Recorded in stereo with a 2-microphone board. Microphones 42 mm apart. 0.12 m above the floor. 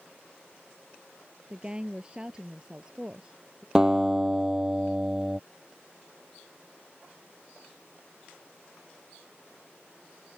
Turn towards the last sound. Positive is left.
turn(degrees=-15)  # may be behind; listen again after turning